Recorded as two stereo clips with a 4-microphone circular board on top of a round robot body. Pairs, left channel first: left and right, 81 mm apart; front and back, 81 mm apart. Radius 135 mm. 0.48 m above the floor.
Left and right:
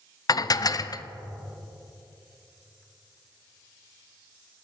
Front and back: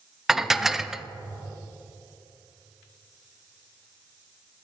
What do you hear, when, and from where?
0.3 s dishes clattering: 95° left, 0.5 m